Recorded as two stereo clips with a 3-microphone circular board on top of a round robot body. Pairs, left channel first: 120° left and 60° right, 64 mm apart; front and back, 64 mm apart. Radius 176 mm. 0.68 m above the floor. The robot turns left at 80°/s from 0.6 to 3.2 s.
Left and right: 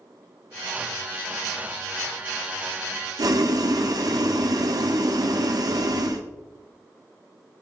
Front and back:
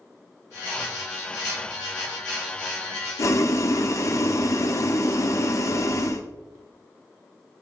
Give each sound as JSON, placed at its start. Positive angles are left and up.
{"t": 3.2, "sound": "boiling", "azimuth_deg": -40, "distance_m": 1.1}